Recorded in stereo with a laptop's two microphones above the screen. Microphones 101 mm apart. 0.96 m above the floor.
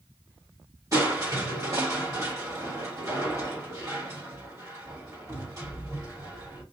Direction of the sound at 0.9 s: 35° right (ahead or behind).